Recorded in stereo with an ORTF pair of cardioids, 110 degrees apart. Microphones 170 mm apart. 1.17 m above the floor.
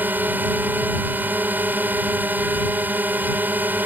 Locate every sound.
0.0 s a drone: 10° right